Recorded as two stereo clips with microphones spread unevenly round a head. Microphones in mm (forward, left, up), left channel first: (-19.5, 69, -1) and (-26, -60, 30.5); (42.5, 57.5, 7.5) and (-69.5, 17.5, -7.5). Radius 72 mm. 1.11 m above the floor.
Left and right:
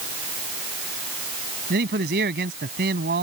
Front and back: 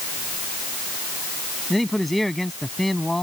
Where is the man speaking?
70° right.